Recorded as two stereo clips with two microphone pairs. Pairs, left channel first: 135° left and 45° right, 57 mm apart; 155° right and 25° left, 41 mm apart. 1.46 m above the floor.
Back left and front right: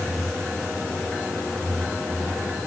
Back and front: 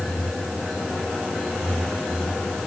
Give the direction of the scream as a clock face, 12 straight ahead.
I don't hear a scream.